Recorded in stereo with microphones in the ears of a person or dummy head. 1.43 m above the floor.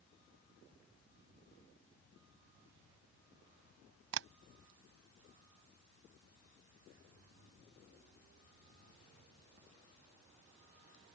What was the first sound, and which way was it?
Tapping, 60° right (ahead or behind).